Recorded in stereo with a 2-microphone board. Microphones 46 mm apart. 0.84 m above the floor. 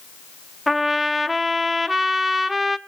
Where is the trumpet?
5° right (ahead or behind), 0.7 m.